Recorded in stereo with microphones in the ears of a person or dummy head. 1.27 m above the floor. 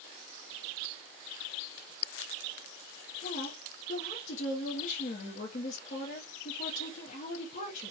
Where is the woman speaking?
45° left (ahead or behind), 0.7 m.